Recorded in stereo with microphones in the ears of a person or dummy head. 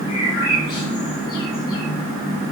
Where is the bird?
35° left (ahead or behind), 5 m.